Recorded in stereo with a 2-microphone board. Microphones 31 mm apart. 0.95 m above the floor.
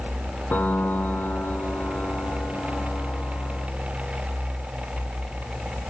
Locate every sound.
0.5 s a piano: 85° left